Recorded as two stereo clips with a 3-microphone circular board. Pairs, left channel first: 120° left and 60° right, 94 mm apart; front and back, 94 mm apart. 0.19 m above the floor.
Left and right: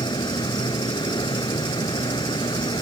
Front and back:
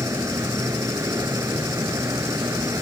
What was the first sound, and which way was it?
An insect, 135° left.